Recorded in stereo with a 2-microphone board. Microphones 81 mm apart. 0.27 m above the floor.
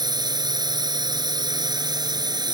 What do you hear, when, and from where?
0.0 s a drone: 50° right (ahead or behind)